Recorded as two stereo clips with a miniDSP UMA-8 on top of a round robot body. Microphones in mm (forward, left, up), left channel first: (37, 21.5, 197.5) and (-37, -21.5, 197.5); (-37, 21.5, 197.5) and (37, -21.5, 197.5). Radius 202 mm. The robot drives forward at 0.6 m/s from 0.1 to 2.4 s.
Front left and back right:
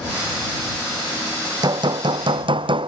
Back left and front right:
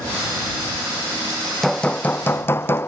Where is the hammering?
125° right; by 2.9 s 150° right.